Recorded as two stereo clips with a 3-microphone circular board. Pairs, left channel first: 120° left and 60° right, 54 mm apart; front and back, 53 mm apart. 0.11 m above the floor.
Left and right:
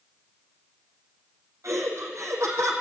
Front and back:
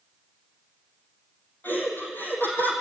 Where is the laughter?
50° right, 5 m.